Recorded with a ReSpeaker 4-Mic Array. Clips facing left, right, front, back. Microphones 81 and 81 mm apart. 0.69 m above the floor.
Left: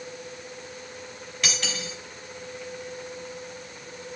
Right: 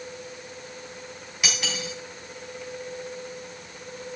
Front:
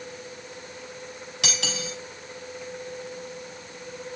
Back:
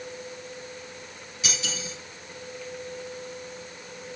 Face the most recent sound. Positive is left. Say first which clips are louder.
# right 1 dB, front 3 dB
turn(degrees=-10)